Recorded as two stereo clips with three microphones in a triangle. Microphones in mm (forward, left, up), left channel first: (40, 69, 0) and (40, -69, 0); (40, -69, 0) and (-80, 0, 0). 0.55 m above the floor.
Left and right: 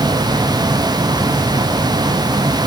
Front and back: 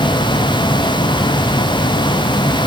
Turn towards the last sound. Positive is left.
No sound to turn to.